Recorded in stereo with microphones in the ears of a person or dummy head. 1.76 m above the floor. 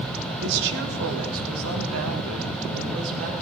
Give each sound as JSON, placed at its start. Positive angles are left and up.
{"t": 0.4, "sound": "a woman speaking", "side_deg": -65, "distance_m": 1.4}